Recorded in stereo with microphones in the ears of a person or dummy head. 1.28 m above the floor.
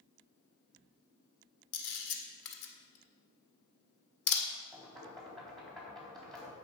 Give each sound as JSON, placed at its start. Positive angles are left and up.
{"t": 1.7, "sound": "a camera shutter", "side_deg": 65, "distance_m": 1.7}
{"t": 4.7, "sound": "knocking", "side_deg": 0, "distance_m": 3.0}